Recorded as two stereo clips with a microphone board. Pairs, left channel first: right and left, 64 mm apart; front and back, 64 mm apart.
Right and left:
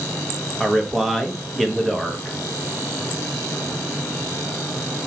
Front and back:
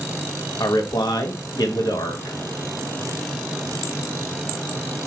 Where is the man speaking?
Straight ahead, 0.5 m.